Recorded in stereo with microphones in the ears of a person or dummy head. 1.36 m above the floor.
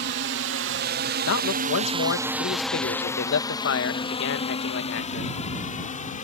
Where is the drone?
55° right (ahead or behind); by 6.2 s 35° left (ahead or behind).